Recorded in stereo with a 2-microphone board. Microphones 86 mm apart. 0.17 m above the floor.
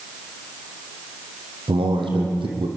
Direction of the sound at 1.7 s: 80° right.